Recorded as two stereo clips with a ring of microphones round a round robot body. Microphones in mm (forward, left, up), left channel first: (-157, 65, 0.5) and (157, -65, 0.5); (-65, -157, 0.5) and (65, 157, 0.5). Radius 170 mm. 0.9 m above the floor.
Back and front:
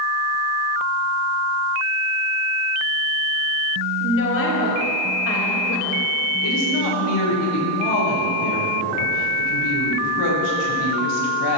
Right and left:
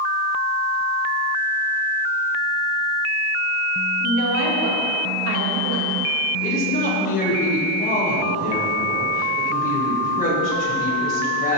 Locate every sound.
4.0 s a woman speaking: 105° left, 4.5 m
6.4 s a woman speaking: straight behind, 5 m